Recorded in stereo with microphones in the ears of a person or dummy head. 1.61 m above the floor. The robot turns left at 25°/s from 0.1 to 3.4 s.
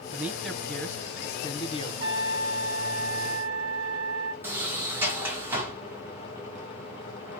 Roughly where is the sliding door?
Centre.